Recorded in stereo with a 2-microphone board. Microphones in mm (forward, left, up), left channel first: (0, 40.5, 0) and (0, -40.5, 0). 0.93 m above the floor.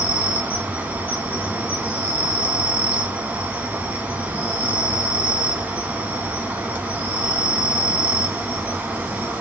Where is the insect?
20° right (ahead or behind), 0.8 m.